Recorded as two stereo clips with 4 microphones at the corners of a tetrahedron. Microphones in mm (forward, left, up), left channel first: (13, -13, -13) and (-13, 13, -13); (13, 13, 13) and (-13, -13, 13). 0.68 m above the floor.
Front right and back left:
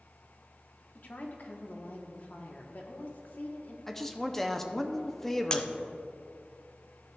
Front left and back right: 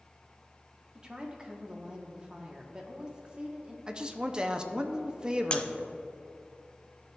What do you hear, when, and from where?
0.9 s a woman speaking: 75° right, 1.1 m
3.9 s a man speaking: 115° right, 0.6 m
5.5 s breaking glass: straight ahead, 0.6 m